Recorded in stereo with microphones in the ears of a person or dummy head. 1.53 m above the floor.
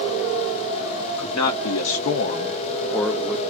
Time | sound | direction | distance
1.2 | a man speaking | 85° left | 1.0 m